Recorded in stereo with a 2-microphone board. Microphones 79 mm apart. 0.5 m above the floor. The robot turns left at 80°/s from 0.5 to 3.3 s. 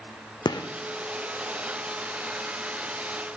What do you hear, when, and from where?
0.5 s a gunshot: 65° left (ahead or behind), 0.6 m